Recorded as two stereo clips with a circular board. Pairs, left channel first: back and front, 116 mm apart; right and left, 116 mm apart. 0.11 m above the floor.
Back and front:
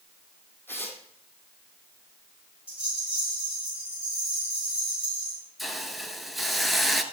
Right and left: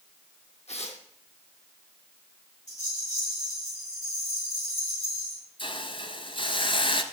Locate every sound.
0.7 s tearing paper: 110° right, 2.5 m
2.7 s a rattle: 80° right, 7.5 m
5.6 s a hiss: 90° right, 1.0 m